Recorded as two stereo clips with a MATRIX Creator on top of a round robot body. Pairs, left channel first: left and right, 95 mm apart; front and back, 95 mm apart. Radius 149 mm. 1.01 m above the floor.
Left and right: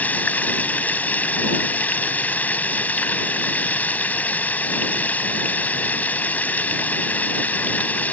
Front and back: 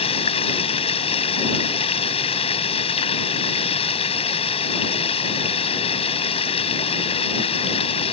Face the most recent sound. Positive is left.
turn(degrees=20)